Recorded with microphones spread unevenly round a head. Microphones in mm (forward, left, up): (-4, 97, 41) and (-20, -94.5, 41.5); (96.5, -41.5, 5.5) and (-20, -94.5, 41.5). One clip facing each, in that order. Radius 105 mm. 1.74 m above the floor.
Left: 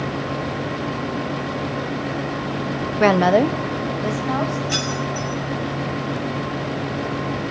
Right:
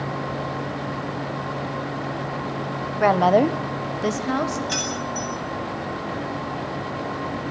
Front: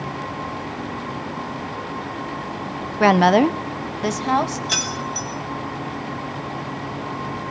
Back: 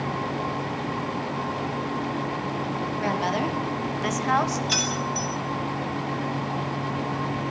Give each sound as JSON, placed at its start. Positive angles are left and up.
{"t": 3.0, "sound": "a woman speaking", "azimuth_deg": 50, "distance_m": 0.8}
{"t": 4.7, "sound": "keys jangling", "azimuth_deg": -15, "distance_m": 5.5}